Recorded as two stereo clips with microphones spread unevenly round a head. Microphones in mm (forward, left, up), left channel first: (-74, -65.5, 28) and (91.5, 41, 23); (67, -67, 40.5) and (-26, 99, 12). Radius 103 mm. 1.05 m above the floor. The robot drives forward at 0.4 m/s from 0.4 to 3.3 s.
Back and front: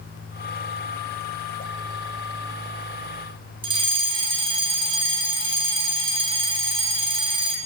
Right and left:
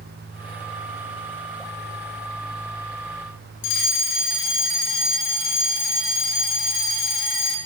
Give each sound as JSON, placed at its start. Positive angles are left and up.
{"t": 3.6, "sound": "a fire alarm", "azimuth_deg": -35, "distance_m": 6.5}